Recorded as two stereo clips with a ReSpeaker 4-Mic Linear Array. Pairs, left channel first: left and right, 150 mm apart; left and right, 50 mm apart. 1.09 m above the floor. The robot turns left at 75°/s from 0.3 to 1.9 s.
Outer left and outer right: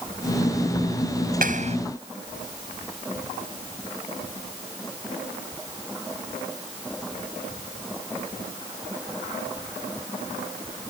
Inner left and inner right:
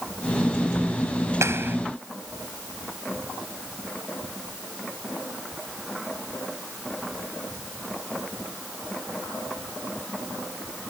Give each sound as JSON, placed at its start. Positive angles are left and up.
{"t": 1.4, "sound": "a clap", "side_deg": -70}